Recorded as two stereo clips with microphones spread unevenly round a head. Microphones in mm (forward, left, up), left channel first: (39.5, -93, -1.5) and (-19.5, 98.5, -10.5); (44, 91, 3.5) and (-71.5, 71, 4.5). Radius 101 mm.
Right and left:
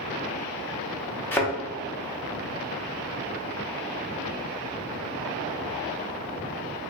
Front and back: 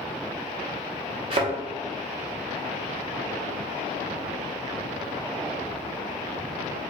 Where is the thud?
150° right, 0.7 m.